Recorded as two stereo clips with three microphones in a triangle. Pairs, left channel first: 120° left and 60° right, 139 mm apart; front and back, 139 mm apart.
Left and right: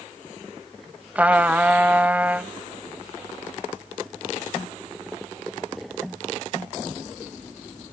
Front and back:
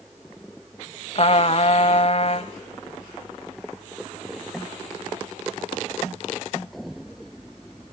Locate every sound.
1.1 s a trumpet: 15° left, 1.1 m